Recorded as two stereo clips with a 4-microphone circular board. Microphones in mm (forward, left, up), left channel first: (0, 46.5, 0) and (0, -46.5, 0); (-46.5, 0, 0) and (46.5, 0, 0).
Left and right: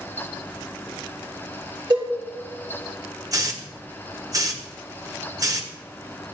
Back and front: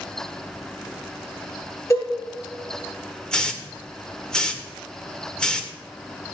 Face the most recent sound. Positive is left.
turn(degrees=-100)